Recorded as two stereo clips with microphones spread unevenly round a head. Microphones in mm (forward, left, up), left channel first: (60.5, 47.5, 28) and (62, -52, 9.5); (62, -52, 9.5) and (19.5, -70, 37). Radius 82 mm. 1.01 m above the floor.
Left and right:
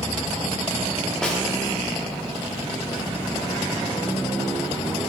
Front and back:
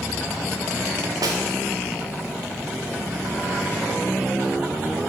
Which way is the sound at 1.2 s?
Straight behind.